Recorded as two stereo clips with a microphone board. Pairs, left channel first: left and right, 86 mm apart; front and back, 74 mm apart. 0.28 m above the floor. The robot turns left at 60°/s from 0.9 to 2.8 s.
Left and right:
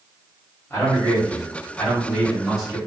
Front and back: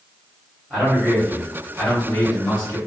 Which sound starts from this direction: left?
A man speaking, at 0.7 s.